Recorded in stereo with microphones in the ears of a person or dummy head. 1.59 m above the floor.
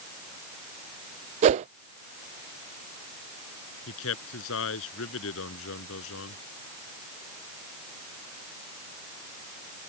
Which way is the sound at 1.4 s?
40° right (ahead or behind).